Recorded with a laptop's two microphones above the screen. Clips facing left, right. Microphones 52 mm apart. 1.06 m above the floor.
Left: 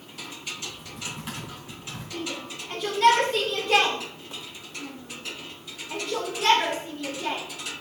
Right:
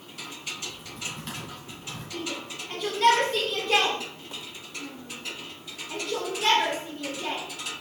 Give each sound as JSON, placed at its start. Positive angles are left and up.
{"t": 0.6, "sound": "typing on a keyboard", "side_deg": 5, "distance_m": 3.0}
{"t": 2.1, "sound": "a shout", "side_deg": 0, "distance_m": 3.0}